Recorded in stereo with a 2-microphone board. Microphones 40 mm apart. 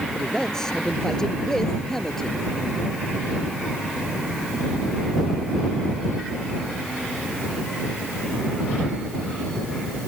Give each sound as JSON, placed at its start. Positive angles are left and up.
{"t": 0.1, "sound": "a man speaking", "side_deg": 15}